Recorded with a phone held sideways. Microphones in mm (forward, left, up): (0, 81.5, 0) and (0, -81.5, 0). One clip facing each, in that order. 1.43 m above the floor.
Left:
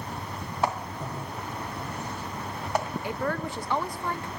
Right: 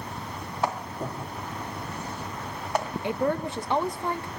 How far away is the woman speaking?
About 1.0 m.